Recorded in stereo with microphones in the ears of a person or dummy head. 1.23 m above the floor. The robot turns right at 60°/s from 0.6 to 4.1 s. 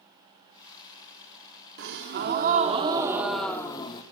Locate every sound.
1.8 s a gasp: 95° right, 1.2 m; by 4.0 s 40° left, 1.2 m